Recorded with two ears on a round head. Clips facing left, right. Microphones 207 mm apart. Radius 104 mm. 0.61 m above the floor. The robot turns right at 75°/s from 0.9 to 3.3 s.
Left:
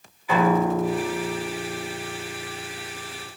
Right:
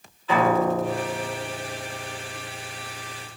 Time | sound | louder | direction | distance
0.3 | a piano | even | 20° left | 1.3 m